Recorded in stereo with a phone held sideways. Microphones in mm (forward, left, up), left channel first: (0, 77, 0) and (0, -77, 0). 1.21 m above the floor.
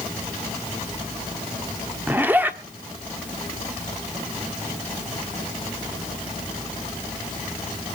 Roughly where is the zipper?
Centre.